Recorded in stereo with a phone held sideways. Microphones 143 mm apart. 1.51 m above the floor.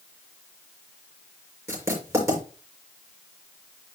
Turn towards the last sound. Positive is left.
turn(degrees=-20)  # may be behind; listen again after turning